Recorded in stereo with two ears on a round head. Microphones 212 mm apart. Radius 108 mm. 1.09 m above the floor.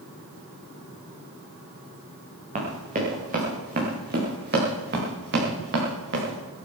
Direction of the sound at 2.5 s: 30° right (ahead or behind).